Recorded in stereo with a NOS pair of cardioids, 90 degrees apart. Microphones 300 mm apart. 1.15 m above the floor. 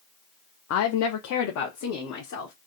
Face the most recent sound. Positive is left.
turn(degrees=70)